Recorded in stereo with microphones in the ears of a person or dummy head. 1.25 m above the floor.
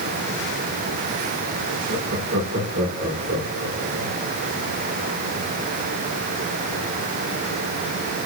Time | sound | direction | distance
1.9 | laughter | 80° right | 4 m